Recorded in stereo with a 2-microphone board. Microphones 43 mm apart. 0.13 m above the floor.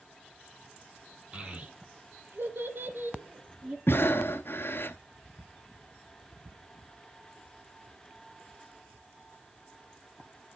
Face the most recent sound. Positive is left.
turn(degrees=55)  # may be behind; listen again after turning